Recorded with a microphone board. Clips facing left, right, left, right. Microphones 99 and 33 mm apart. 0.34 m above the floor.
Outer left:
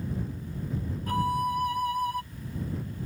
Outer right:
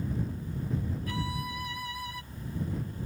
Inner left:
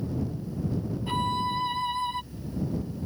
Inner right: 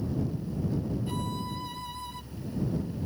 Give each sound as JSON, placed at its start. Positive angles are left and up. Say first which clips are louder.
{"t": 1.1, "sound": "a violin", "louder": "outer left 8 dB, inner left 7 dB", "side_deg": 45}